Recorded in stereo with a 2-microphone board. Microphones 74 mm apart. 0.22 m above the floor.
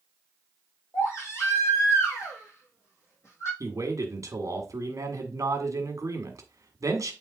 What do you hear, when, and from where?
0.9 s a baby crying: 40° left (ahead or behind), 4 m
3.6 s a man speaking: 45° right (ahead or behind), 1.5 m